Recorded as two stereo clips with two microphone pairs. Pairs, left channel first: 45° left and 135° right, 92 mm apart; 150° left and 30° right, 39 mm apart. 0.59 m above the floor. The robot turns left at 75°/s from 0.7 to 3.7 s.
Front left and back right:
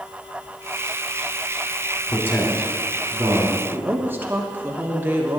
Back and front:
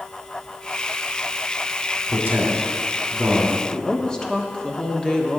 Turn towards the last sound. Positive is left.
turn(degrees=-170)